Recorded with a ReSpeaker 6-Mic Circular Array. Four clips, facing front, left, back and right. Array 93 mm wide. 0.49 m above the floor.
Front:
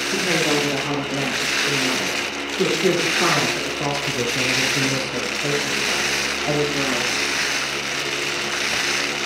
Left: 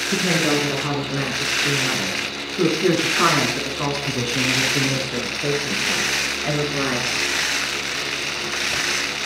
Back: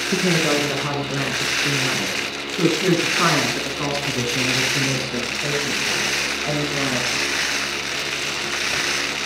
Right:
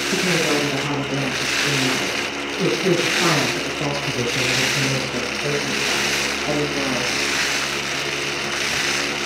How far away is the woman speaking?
About 7.5 m.